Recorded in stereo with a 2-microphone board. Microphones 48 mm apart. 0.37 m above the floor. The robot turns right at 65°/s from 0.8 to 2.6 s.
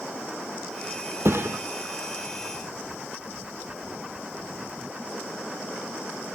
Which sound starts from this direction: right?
A thud, at 1.2 s.